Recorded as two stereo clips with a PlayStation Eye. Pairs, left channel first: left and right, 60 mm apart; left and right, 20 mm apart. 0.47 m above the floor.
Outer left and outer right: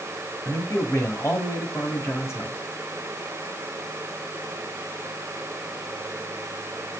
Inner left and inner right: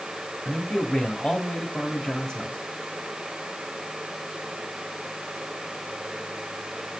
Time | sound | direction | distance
0.5 | a man speaking | 45° left (ahead or behind) | 2 m